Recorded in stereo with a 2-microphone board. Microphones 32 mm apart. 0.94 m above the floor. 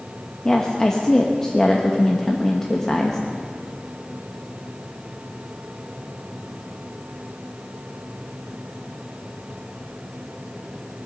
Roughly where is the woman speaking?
Centre.